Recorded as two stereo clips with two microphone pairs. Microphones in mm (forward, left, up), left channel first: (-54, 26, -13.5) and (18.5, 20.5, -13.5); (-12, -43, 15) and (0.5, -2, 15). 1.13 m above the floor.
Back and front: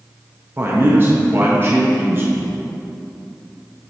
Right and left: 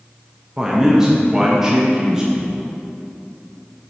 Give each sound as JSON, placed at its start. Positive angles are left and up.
{"t": 0.6, "sound": "a man speaking", "azimuth_deg": 5, "distance_m": 0.7}